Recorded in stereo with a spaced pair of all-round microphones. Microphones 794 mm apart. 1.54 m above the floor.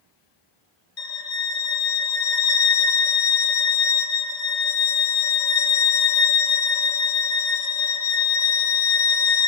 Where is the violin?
55° left (ahead or behind), 1.4 m.